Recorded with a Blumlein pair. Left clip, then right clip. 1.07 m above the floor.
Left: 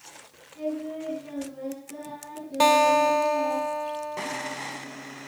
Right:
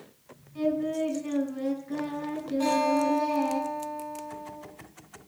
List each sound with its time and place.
0.6 s singing: 70° right, 7.5 m
2.6 s a guitar: 45° left, 1.6 m